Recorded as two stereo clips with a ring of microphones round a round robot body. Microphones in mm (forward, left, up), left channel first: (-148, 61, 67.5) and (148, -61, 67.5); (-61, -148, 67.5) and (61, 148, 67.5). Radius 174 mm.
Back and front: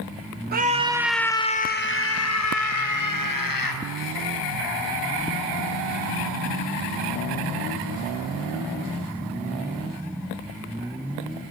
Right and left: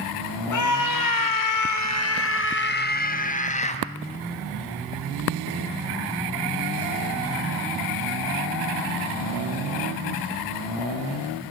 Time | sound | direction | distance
0.5 | a scream | 85° right | 1.6 m